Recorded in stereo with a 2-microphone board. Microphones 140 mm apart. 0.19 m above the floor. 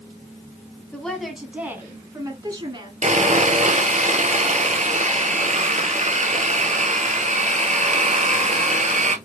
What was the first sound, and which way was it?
A woman speaking, 10° left (ahead or behind).